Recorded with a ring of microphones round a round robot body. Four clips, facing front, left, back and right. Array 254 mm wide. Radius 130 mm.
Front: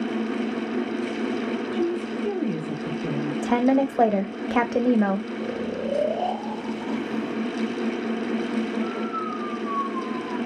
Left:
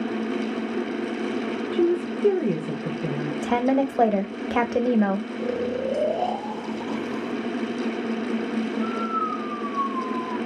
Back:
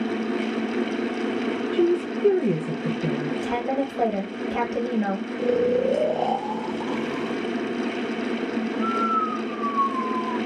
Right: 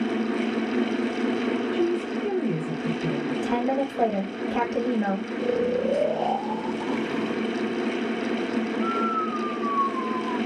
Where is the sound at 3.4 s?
45° left, 0.6 m.